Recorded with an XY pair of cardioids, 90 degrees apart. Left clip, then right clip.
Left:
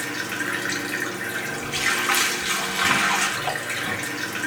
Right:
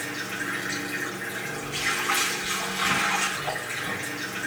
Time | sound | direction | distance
0.0 | running water | 55° left | 2.5 m